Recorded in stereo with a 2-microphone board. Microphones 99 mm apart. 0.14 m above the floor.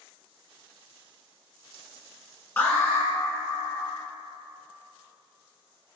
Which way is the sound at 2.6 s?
25° left (ahead or behind).